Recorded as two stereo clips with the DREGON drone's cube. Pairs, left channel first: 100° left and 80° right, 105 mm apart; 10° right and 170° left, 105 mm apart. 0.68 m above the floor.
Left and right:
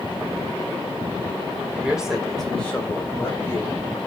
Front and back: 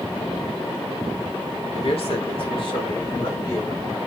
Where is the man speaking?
5° right, 1.8 m; by 4.0 s 45° left, 2.5 m.